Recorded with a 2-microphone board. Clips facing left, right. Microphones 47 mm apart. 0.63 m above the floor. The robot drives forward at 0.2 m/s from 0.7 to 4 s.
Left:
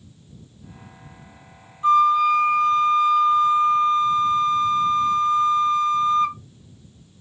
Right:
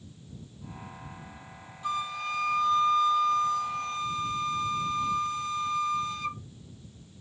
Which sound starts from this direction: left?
A flute, at 1.8 s.